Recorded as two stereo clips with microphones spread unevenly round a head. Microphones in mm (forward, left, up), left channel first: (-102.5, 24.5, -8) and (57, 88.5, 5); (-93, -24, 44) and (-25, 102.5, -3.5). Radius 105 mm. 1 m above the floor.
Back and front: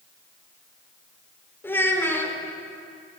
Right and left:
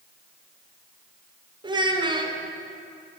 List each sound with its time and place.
1.6 s a child speaking: 125° left, 1.8 m